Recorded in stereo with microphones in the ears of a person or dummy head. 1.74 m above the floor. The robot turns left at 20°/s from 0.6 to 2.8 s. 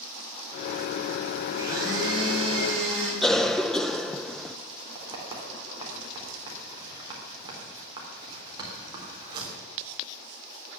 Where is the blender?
15° right (ahead or behind), 4.5 m; by 3.1 s 10° left (ahead or behind), 4.5 m.